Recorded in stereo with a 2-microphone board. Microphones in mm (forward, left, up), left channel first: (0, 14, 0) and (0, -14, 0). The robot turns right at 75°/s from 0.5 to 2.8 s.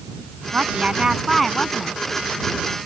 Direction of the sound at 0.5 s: 70° right.